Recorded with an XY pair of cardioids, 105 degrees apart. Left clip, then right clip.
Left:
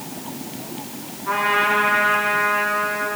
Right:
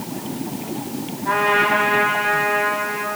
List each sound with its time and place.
1.2 s a trumpet: 55° right, 5 m